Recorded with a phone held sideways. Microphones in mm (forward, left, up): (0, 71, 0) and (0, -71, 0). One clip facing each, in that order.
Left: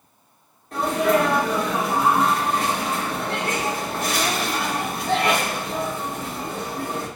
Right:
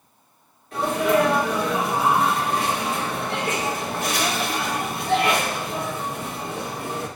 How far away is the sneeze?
About 2 m.